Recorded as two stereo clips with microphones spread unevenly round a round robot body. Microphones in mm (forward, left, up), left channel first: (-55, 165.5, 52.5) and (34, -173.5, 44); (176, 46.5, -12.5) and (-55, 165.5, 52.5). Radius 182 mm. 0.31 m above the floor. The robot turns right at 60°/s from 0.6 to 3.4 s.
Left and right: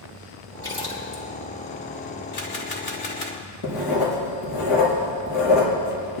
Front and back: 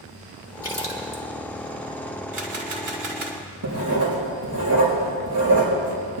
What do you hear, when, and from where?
0.6 s a splash: straight ahead, 3.5 m; by 1.2 s 40° left, 3.5 m
2.3 s a camera shutter: 105° left, 2.5 m; by 3.4 s 170° left, 2.5 m
3.6 s writing: 130° left, 5 m